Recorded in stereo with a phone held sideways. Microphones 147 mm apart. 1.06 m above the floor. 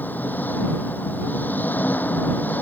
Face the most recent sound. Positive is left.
turn(degrees=10)  # may be behind; listen again after turning